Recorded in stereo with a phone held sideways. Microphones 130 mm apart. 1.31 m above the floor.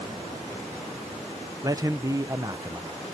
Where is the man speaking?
25° right (ahead or behind), 0.6 m.